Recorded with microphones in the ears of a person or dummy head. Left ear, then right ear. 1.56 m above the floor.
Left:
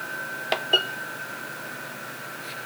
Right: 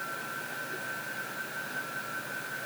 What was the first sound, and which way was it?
Only background noise.